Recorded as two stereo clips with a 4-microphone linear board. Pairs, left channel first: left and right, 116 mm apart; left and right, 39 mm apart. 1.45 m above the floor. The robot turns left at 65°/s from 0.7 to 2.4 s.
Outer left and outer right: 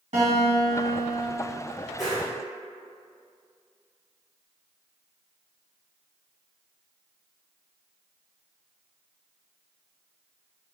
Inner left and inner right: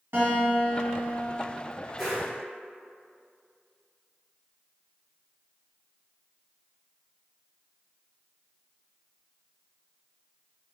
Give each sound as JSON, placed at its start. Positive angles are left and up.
{"t": 0.1, "sound": "a guitar", "azimuth_deg": -100, "distance_m": 1.6}
{"t": 2.0, "sound": "a whoosh", "side_deg": 0, "distance_m": 1.2}